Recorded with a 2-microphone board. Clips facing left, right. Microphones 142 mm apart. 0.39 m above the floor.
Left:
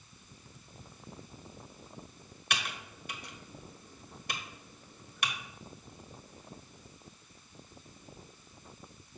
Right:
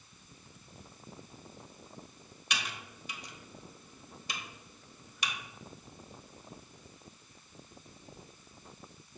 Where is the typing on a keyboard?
55° left (ahead or behind), 1.0 m.